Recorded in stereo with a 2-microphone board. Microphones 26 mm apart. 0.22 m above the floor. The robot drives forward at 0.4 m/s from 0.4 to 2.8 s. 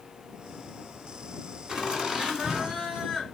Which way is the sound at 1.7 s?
25° right (ahead or behind).